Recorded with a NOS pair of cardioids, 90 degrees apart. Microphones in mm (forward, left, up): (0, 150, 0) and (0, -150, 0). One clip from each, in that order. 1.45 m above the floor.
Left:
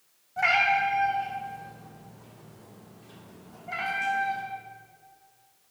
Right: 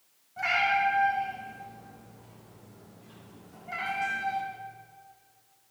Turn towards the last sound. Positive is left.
turn(degrees=-20)